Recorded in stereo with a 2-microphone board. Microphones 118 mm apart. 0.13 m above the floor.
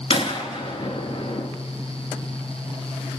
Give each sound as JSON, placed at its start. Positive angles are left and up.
{"t": 0.1, "sound": "a gunshot", "side_deg": 50, "distance_m": 0.6}